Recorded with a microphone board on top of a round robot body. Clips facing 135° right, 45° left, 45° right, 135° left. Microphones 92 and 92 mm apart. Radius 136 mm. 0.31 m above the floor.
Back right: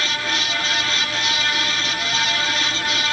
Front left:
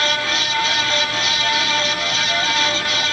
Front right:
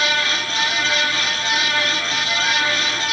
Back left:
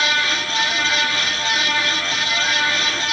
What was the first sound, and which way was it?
Only background noise.